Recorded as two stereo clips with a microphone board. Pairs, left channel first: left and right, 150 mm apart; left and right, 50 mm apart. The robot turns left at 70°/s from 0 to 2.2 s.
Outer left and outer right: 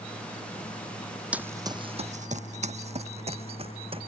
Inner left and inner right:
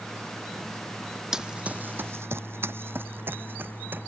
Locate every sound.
1.3 s running footsteps: 10° right (ahead or behind); by 4.1 s 40° right (ahead or behind)